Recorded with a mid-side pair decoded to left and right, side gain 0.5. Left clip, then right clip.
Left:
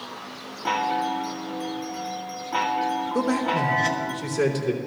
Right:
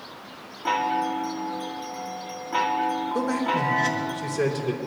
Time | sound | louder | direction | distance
0.7 | a chime | even | 5° left | 2 m
3.1 | a man speaking | left 2 dB | 20° left | 3 m